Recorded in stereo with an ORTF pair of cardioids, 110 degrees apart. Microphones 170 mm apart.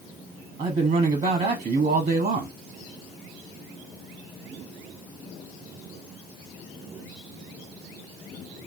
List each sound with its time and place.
0.6 s a man speaking: 40° right, 0.9 m